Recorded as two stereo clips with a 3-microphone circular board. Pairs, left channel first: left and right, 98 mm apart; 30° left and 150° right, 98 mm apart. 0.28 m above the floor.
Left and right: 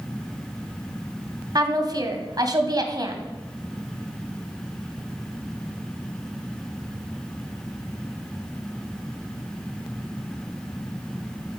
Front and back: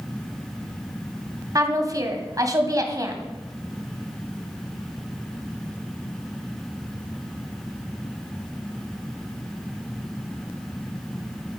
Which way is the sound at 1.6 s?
115° right.